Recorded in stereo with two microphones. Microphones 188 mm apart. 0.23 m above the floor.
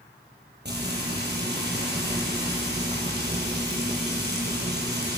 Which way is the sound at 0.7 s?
65° right (ahead or behind).